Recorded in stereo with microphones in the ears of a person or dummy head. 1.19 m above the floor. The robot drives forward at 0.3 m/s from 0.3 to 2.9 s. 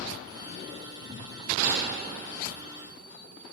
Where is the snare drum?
60° right (ahead or behind), 1.5 m; by 1.8 s 65° right (ahead or behind), 1.5 m.